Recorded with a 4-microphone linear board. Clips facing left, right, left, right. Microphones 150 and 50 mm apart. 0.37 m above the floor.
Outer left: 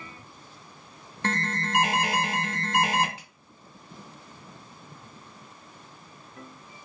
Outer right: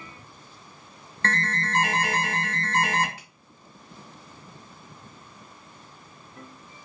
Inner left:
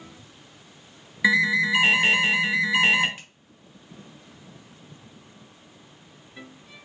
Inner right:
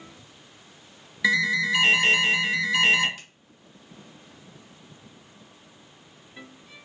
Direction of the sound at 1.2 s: 15° left (ahead or behind).